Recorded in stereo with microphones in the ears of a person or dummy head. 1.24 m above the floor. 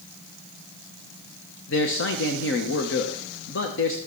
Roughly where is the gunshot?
I don't hear a gunshot.